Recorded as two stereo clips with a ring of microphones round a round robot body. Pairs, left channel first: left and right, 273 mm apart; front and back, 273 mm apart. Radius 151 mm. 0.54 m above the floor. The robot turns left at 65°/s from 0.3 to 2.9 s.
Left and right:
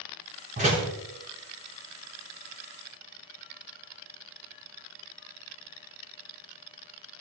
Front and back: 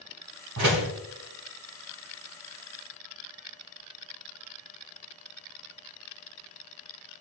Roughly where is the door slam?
Behind right.